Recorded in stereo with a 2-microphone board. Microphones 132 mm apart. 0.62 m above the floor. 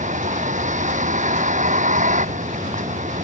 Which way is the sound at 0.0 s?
75° right (ahead or behind).